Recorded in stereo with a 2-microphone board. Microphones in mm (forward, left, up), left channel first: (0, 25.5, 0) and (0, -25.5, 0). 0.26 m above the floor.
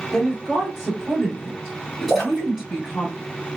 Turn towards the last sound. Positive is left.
turn(degrees=0)  # may be behind; listen again after turning